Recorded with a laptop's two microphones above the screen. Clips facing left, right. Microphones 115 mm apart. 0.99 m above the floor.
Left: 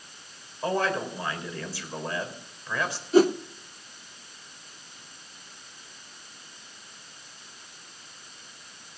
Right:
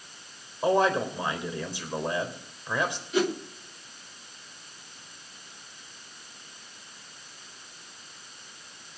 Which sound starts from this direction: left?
A whoosh, at 3.1 s.